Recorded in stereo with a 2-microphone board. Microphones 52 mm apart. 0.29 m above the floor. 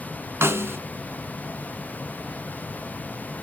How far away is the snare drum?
About 0.9 m.